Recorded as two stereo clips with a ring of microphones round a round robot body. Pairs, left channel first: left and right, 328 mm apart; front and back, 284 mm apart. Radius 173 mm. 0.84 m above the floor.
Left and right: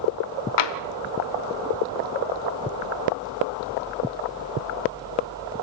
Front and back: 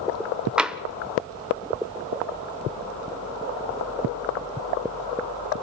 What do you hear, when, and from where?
0.6 s tapping: 95° left, 1.0 m